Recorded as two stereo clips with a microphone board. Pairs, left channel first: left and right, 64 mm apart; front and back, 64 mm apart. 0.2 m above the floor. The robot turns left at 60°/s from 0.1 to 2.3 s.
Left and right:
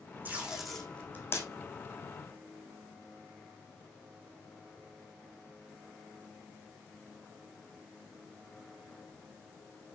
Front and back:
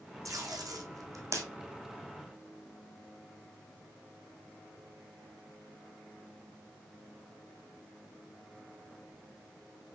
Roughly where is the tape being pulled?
Behind right.